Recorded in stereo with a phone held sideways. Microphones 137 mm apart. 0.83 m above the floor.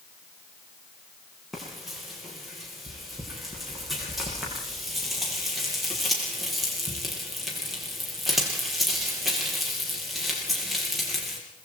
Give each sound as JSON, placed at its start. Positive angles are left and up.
{"t": 1.5, "sound": "frying", "side_deg": 0, "distance_m": 6.5}